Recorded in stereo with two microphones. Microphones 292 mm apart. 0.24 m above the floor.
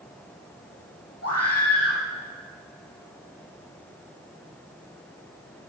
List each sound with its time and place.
1.2 s a scream: 55° left (ahead or behind), 6.5 m